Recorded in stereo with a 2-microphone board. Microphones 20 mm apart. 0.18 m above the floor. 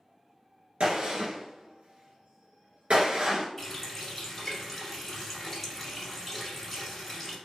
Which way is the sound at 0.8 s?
65° right (ahead or behind).